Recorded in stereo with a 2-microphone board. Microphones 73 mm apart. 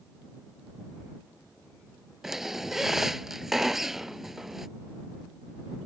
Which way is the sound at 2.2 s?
5° right (ahead or behind).